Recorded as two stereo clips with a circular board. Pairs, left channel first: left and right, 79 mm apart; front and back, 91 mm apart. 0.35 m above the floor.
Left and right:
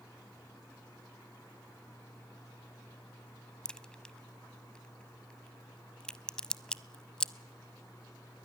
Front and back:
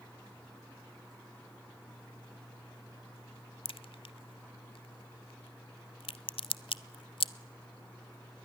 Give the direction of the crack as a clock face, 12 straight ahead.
12 o'clock.